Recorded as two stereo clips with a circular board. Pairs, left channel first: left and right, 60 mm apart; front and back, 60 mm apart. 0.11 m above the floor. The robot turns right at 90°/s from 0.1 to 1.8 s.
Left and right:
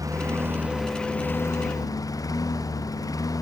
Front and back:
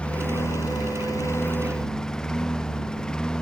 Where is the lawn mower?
75° right; by 3.4 s 75° left.